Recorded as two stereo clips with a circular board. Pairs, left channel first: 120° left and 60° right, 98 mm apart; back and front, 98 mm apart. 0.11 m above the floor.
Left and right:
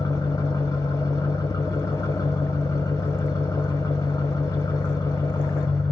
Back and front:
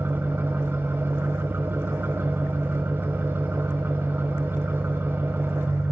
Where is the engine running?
70° left, 2.5 m.